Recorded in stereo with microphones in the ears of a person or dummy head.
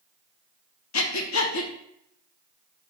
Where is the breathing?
80° left, 0.8 m.